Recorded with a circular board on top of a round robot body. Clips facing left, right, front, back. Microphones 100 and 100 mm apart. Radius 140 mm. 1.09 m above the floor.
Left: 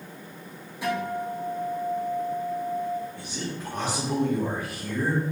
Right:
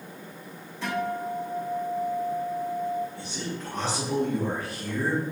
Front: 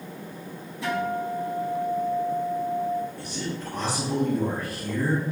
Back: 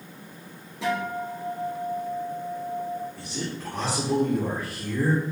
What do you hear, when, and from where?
0.8 s a guitar: 170° left, 4 m
3.2 s a man speaking: 170° left, 4 m